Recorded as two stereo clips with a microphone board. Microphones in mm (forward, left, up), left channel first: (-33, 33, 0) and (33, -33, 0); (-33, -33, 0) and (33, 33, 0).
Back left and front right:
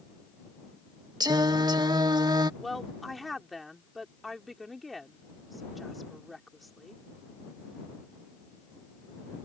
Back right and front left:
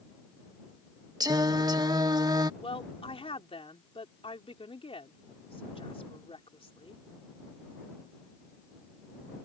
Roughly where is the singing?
Ahead.